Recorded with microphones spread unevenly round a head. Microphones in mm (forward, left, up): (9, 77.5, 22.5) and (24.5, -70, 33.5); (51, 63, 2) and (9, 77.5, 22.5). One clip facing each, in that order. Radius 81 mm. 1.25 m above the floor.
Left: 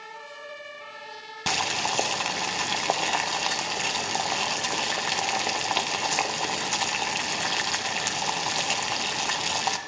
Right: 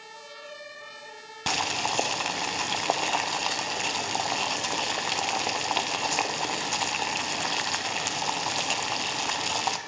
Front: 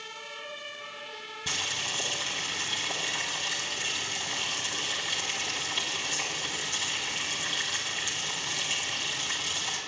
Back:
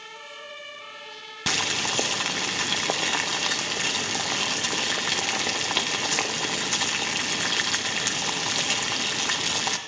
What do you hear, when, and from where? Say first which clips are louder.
1.5 s boiling: left 1 dB, back 7 dB; straight behind, 0.6 m